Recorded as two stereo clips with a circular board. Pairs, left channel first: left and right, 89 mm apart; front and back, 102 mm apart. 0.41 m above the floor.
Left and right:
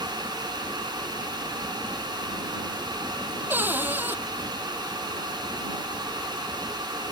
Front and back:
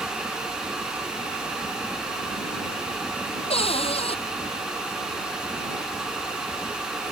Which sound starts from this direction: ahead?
A cupboard door, at 3.5 s.